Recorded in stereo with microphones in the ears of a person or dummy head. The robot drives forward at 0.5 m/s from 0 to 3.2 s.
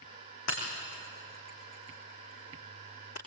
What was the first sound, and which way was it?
Breaking glass, 50° left (ahead or behind).